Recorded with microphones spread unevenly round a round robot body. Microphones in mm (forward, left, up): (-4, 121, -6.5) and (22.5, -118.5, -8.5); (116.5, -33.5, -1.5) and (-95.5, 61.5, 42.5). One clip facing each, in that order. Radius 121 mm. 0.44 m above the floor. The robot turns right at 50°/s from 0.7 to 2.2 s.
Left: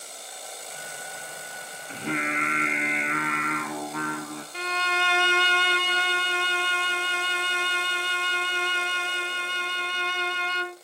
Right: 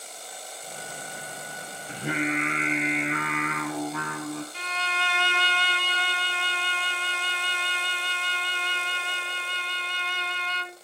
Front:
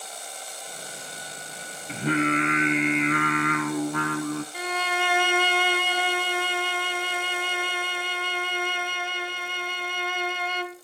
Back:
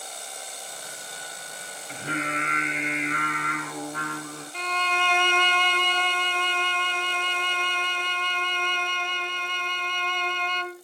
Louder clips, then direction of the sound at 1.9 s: Right 2 dB, front 8 dB; 10° right.